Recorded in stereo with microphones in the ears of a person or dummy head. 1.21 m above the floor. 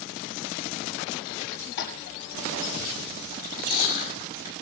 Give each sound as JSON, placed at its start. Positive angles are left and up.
{"t": 1.8, "sound": "tapping", "side_deg": 60, "distance_m": 9.0}
{"t": 3.3, "sound": "chewing", "side_deg": 45, "distance_m": 6.5}